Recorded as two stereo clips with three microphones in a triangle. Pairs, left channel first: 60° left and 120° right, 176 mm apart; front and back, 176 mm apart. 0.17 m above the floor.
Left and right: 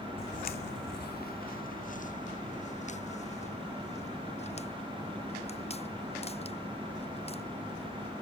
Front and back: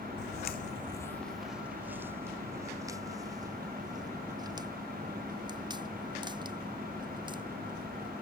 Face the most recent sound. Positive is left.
turn(degrees=115)